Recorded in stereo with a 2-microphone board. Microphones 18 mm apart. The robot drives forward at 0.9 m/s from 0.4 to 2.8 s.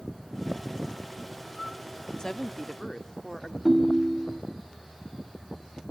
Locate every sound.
2.2 s a woman speaking: 35° left (ahead or behind), 0.7 m; by 3.5 s 25° left (ahead or behind), 0.9 m
3.6 s a ringtone: 10° right (ahead or behind), 0.6 m